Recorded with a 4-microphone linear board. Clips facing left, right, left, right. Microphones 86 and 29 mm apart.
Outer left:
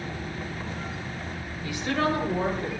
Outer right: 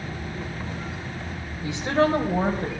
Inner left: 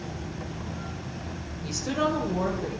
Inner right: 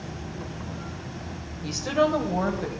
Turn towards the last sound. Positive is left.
turn(degrees=-45)  # may be behind; listen again after turning